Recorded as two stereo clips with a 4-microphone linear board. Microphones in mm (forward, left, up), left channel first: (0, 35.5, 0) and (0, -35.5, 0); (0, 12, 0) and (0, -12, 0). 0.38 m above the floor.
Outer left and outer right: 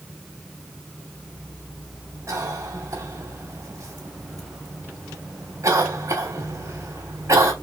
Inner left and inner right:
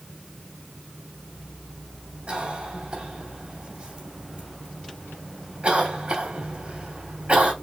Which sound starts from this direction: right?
A cough, at 2.3 s.